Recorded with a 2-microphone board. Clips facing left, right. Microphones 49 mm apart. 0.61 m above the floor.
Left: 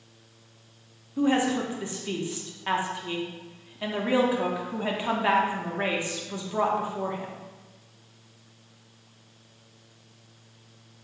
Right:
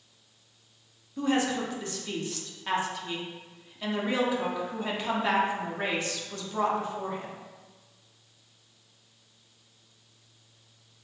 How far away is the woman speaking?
About 0.8 m.